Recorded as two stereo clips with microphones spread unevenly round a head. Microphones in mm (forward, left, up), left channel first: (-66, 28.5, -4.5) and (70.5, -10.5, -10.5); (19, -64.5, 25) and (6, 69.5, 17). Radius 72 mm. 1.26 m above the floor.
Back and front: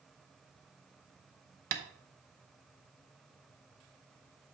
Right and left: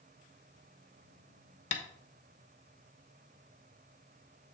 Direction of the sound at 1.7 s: 50° right.